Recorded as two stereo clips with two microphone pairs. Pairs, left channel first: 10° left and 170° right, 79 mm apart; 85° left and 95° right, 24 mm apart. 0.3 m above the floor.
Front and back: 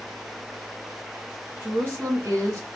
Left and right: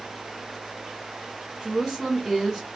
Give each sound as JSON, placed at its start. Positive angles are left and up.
{"t": 1.6, "sound": "a woman speaking", "azimuth_deg": 165, "distance_m": 1.3}